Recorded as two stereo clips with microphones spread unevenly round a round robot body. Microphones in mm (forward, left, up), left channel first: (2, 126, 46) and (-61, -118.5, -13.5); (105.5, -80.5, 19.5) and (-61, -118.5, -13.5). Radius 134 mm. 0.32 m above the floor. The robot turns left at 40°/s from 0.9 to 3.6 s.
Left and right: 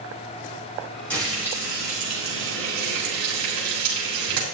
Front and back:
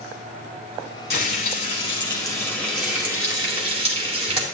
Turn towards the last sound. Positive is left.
turn(degrees=-115)